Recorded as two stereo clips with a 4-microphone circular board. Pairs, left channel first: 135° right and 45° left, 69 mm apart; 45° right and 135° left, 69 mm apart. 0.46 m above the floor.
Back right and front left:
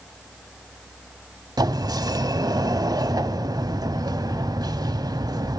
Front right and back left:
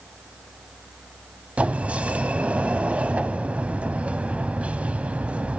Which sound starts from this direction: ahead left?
A sliding door, at 1.6 s.